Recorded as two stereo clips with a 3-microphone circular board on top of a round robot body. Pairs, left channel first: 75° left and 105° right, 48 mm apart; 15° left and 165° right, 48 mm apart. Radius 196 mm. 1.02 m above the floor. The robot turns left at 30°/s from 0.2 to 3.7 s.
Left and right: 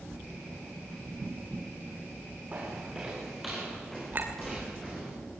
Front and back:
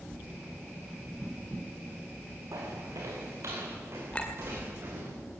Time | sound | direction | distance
2.5 | footsteps | 165° right | 6 m
4.1 | a clink | 55° right | 2.5 m